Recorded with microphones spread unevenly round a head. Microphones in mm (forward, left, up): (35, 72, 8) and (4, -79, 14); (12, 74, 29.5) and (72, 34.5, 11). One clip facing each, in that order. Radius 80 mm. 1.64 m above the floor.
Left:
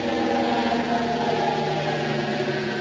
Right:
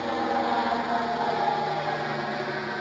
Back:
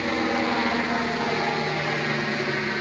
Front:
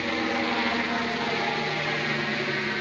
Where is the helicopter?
75° left; by 2.8 s 70° left.